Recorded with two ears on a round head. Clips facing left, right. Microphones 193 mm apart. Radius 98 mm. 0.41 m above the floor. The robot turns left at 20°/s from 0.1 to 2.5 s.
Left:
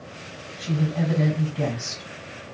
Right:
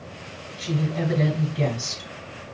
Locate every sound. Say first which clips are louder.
0.6 s a woman speaking: even; 10° right, 1.6 m; by 2.5 s 50° right, 1.6 m